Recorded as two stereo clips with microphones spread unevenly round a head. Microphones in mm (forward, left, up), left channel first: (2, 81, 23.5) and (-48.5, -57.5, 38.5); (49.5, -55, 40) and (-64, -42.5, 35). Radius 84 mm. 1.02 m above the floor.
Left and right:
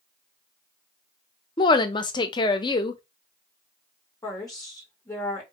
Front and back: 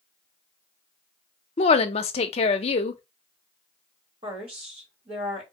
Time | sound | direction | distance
1.6 | a woman speaking | 15° left | 0.6 m
4.2 | a woman speaking | 135° left | 2 m